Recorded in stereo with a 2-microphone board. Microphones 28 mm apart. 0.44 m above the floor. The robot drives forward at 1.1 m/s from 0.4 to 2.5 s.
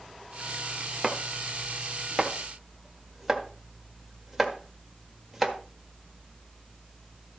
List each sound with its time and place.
1.0 s chopping: 5° right (ahead or behind), 1.1 m